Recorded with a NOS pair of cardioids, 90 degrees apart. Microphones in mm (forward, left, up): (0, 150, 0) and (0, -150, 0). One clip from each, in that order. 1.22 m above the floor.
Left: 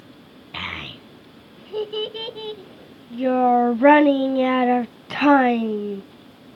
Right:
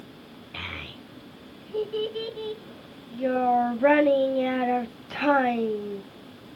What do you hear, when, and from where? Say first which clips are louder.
0.5 s a child speaking: left 6 dB; 35° left, 0.8 m